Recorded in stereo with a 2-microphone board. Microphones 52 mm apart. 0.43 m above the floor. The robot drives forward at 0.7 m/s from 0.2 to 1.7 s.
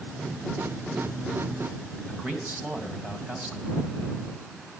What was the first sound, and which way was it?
A man speaking, 25° right (ahead or behind).